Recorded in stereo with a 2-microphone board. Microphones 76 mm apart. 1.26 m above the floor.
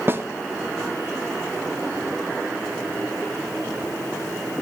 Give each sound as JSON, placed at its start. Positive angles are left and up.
{"t": 0.1, "sound": "a snare drum", "side_deg": -30, "distance_m": 0.6}